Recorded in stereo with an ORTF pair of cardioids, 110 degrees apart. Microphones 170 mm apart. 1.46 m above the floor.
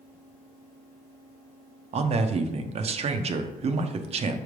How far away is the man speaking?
About 0.8 m.